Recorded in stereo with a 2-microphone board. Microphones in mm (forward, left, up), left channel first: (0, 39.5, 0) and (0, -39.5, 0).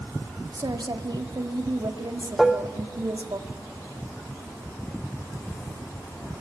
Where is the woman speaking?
65° right (ahead or behind), 1.8 m.